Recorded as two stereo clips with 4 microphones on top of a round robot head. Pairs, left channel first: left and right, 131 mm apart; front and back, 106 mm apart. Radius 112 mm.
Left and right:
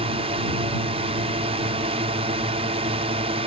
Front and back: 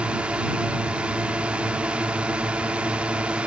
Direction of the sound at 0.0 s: 100° right.